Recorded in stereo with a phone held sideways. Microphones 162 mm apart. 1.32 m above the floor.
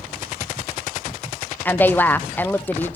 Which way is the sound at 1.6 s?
10° left (ahead or behind).